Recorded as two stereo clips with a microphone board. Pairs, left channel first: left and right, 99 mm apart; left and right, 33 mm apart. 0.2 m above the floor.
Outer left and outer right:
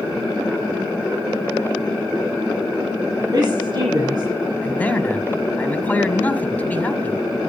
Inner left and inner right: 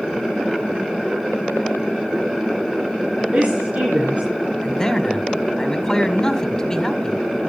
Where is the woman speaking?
50° right (ahead or behind), 3 m.